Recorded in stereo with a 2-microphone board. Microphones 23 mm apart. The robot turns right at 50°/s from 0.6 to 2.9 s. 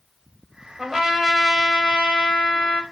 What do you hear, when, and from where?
0.8 s a trumpet: 15° right, 2.5 m; by 2.8 s 85° left, 2.5 m